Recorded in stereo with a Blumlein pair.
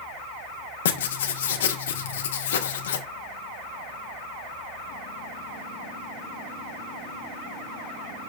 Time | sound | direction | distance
0.8 | writing | 60° left | 1.0 m